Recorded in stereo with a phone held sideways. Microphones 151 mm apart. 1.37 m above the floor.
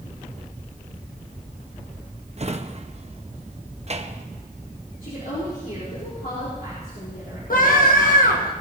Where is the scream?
70° left (ahead or behind), 1.5 m.